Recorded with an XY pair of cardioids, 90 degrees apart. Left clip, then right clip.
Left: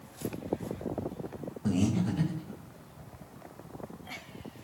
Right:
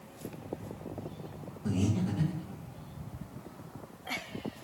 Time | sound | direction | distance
1.6 | breathing | 40° left | 1.3 m